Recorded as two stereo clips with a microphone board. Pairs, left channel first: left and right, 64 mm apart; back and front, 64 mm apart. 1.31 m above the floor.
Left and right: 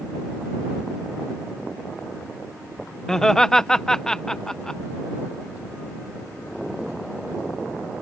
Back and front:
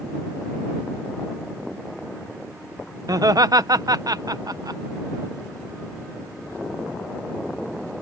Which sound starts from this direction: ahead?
Laughter, at 3.1 s.